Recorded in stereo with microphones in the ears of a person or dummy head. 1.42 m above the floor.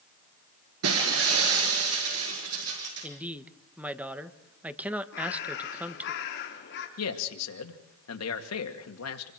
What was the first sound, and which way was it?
Breaking glass, 80° right.